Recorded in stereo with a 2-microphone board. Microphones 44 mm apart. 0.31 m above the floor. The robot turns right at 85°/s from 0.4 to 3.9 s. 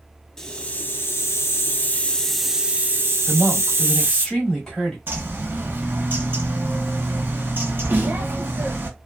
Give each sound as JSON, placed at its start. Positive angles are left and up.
{"t": 0.4, "sound": "a hiss", "azimuth_deg": 15, "distance_m": 0.5}
{"t": 3.3, "sound": "a woman speaking", "azimuth_deg": -30, "distance_m": 1.5}
{"t": 5.1, "sound": "a bird", "side_deg": -50, "distance_m": 0.9}
{"t": 7.9, "sound": "a snare drum", "side_deg": -45, "distance_m": 0.9}